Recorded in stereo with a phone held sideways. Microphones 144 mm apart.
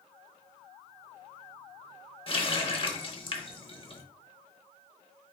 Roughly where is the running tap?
Left.